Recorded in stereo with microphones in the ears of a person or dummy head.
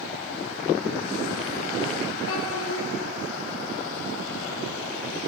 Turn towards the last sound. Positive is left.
turn(degrees=80)